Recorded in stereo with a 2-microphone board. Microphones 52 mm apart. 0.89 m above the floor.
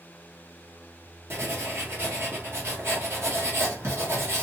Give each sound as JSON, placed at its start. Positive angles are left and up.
{"t": 1.3, "sound": "writing", "side_deg": -55, "distance_m": 1.2}